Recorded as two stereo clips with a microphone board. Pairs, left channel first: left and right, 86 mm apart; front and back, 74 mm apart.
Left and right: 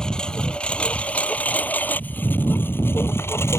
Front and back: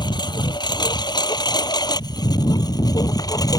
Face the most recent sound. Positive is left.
turn(degrees=30)